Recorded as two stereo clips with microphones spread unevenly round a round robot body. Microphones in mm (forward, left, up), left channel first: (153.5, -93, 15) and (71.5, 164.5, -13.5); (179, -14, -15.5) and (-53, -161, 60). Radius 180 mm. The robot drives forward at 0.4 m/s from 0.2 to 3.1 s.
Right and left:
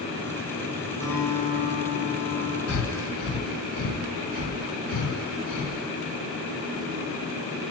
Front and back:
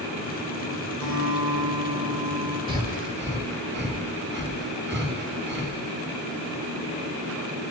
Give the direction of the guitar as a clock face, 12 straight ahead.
5 o'clock.